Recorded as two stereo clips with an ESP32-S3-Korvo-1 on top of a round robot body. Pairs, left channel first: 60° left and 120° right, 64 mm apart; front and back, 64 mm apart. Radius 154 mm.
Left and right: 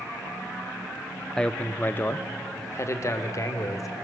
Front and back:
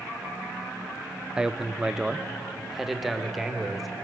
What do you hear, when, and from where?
1.4 s a man speaking: 120° left, 0.8 m; by 3.9 s 95° left, 1.7 m